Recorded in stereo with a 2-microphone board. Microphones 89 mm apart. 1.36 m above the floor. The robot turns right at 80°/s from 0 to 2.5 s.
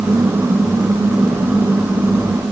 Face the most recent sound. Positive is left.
No sound to turn to.